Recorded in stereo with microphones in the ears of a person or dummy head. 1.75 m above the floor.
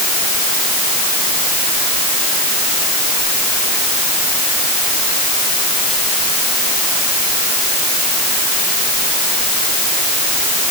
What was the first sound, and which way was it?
Only background noise.